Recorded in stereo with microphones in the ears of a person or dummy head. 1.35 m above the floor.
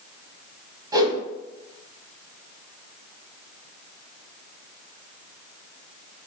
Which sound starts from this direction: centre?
A whoosh, at 0.9 s.